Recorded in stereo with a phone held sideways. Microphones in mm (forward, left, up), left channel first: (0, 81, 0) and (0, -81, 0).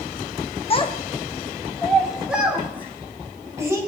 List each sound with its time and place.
0.7 s a child speaking: 35° left (ahead or behind), 1.2 m; by 3.8 s 20° right (ahead or behind), 3.5 m